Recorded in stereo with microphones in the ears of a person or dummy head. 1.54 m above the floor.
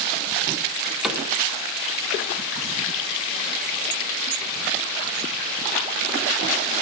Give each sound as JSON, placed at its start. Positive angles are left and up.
{"t": 1.0, "sound": "a cupboard door", "side_deg": -5, "distance_m": 1.7}